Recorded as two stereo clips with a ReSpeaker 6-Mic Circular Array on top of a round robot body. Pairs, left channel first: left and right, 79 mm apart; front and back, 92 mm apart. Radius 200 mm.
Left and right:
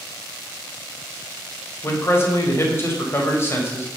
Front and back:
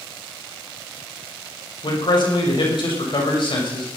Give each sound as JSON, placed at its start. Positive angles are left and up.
{"t": 1.8, "sound": "a man speaking", "azimuth_deg": 30, "distance_m": 6.0}